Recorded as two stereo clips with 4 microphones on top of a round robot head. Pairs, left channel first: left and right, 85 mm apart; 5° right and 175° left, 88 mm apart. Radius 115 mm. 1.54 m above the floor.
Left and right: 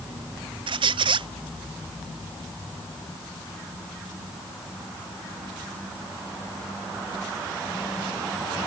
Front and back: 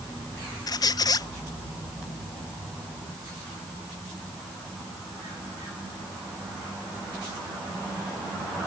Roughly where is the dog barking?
I don't hear a dog barking.